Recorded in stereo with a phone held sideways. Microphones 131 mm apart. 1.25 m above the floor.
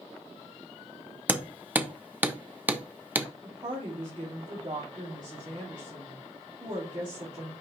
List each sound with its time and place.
1.3 s hammering: 15° right (ahead or behind), 0.7 m
3.4 s a woman speaking: 35° right (ahead or behind), 2.5 m